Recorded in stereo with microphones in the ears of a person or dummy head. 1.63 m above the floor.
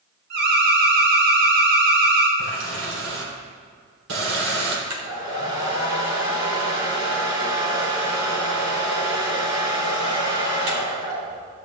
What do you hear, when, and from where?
0.3 s an alarm: 70° right (ahead or behind), 3.5 m
2.4 s a running tap: 80° right, 4 m
4.9 s a hair dryer: 85° right, 3.5 m